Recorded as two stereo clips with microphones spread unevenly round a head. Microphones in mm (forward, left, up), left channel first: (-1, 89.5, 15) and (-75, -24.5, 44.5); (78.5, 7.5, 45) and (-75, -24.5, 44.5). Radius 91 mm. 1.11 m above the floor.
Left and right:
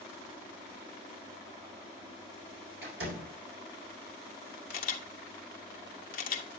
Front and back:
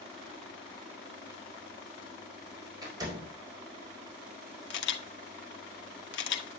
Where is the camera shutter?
20° left, 1.1 m.